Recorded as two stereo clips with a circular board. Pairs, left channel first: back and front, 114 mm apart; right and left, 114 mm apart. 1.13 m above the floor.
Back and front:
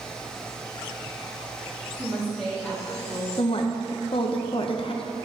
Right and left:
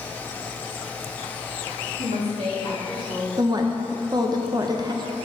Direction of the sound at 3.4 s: 145° left.